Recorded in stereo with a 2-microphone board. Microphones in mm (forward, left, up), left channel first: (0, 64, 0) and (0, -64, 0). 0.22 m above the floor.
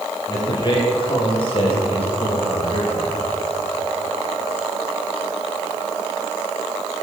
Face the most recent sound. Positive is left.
turn(degrees=60)  # may be behind; listen again after turning